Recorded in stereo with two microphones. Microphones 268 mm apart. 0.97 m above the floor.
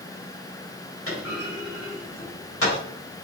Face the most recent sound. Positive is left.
turn(degrees=55)  # may be behind; listen again after turning